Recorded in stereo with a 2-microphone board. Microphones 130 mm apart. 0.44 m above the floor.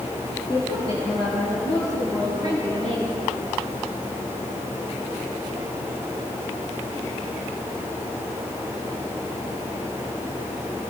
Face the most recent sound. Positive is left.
turn(degrees=65)  # may be behind; listen again after turning